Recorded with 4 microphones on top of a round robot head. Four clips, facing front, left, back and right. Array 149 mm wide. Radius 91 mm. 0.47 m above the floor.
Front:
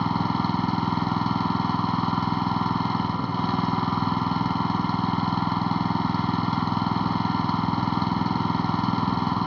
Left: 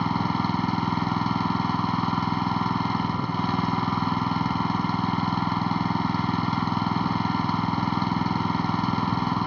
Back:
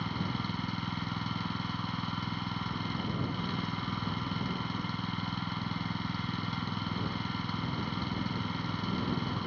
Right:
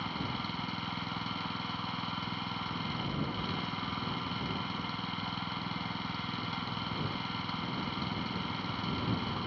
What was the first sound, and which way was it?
An engine running, 40° left.